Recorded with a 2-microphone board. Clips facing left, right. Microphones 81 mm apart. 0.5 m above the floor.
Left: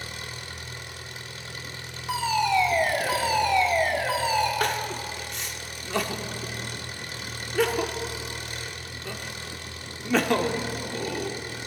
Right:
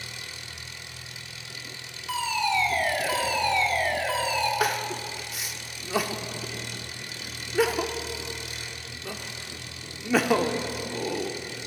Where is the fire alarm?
20° left (ahead or behind), 2.5 m.